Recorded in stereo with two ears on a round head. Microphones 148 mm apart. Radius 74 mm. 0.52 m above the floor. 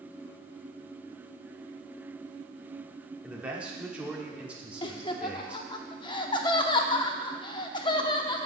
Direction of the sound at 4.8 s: 25° left (ahead or behind).